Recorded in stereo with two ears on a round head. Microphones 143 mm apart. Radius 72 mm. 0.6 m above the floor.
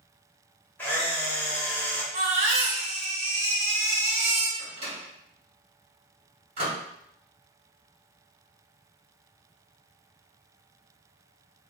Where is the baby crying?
45° right (ahead or behind), 0.7 m.